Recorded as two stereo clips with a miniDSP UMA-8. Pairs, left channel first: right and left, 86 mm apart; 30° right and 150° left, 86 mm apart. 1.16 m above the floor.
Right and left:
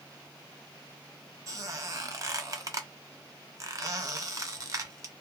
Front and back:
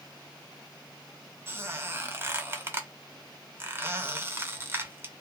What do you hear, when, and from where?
1.5 s a squeak: 105° left, 0.5 m